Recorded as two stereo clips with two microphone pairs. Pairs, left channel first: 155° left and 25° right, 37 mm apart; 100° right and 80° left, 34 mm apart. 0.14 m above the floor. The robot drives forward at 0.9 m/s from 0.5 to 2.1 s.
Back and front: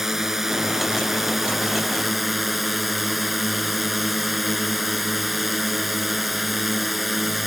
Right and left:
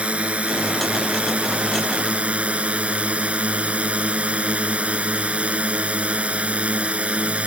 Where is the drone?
50° left; by 7.5 s 60° left.